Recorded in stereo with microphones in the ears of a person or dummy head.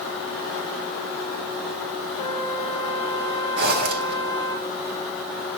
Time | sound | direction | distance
2.2 | a flute | 5° right (ahead or behind) | 3 m
3.6 | a zipper | 55° right (ahead or behind) | 1.5 m